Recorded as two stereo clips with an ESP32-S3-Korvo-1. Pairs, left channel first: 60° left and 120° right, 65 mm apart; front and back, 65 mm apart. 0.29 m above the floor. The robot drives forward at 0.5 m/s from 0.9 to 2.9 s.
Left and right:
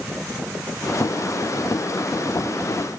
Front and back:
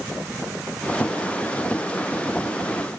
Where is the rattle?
No rattle in this recording.